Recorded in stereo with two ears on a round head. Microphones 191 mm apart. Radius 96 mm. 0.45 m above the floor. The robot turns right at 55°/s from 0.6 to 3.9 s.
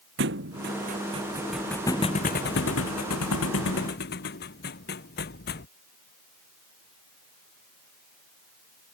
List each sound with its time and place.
0.2 s a thud: 55° right (ahead or behind); by 5.7 s 50° left (ahead or behind)